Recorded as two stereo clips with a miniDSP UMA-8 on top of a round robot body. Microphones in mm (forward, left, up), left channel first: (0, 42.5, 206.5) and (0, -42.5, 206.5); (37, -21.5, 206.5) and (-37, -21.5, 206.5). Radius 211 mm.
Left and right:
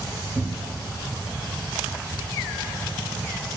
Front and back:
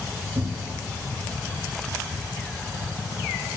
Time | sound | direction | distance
0.3 | a cupboard door | 165° right | 1.4 m